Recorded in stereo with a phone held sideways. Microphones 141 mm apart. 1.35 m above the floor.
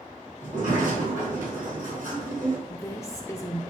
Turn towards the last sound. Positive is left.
turn(degrees=20)  # may be behind; listen again after turning